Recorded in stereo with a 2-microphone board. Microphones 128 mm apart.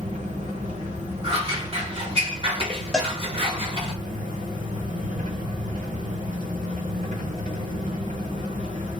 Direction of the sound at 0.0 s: 75° right (ahead or behind).